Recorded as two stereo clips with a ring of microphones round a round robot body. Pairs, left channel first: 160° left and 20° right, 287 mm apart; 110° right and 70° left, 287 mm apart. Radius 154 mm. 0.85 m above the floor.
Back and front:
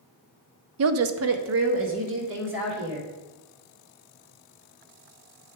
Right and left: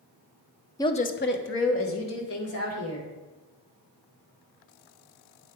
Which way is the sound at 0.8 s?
35° right.